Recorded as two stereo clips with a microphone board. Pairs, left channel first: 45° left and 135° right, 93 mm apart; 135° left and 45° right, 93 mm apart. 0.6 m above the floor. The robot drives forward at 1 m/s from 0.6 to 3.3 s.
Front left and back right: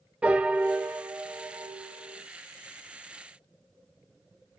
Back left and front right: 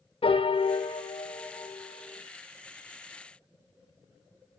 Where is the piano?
150° left, 0.8 m; by 2.2 s 170° left, 2.5 m.